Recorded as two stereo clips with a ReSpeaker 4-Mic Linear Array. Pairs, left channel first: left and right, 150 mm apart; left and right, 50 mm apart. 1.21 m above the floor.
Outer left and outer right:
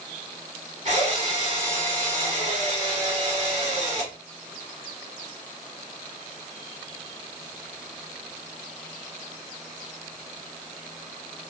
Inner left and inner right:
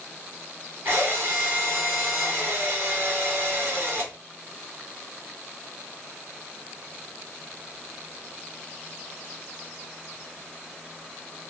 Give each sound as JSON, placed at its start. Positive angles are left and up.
{"t": 0.8, "sound": "a drill", "side_deg": -45, "distance_m": 1.4}